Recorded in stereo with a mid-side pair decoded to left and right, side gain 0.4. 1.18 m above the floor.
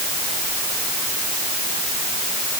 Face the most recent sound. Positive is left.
No sound to turn to.